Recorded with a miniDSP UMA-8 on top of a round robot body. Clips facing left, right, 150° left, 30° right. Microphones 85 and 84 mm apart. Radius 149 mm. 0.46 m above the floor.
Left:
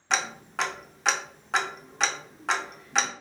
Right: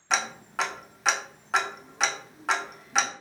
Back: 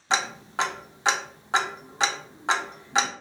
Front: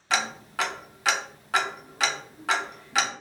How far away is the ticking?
About 0.6 m.